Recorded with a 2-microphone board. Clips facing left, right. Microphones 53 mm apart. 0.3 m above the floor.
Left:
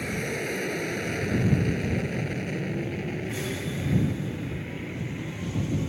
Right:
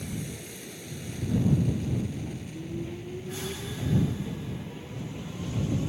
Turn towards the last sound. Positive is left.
turn(degrees=60)  # may be behind; listen again after turning